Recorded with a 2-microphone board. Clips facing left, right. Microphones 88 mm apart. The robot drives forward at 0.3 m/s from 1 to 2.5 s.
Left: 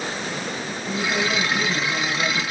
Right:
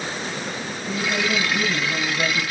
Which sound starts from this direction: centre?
A woman speaking, at 0.8 s.